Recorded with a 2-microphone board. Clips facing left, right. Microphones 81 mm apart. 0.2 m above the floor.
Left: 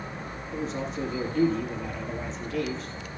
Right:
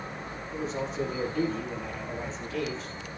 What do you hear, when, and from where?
0.5 s a man speaking: centre (ahead or behind), 6 m